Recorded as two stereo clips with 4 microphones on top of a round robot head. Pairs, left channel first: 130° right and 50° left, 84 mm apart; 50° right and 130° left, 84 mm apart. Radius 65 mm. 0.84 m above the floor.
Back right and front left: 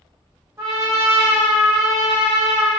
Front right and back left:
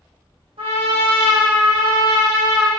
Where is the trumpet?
115° left, 1.5 m.